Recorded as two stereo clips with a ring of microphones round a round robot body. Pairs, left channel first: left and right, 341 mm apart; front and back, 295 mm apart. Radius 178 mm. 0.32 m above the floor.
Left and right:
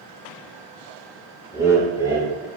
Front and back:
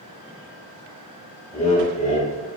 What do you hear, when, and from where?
1.5 s laughter: 20° right, 1.1 m